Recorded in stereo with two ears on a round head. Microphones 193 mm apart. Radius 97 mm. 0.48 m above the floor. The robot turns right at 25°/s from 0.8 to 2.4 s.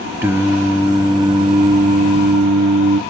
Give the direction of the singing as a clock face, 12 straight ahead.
6 o'clock.